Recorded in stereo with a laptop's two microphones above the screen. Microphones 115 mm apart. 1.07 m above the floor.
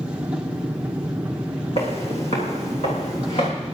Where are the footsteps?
60° left (ahead or behind), 2.5 m; by 3.5 s 70° left (ahead or behind), 3.5 m.